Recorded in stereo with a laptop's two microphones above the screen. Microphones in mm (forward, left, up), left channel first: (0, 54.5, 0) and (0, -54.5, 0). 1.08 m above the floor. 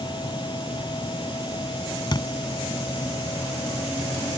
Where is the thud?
40° left (ahead or behind).